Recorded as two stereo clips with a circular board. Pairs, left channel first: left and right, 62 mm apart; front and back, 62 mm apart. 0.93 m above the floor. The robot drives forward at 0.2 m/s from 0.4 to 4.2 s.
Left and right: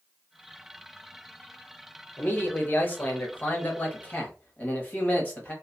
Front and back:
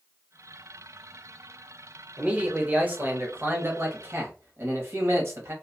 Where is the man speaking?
125° left, 0.8 m; by 5.5 s 150° left, 1.0 m.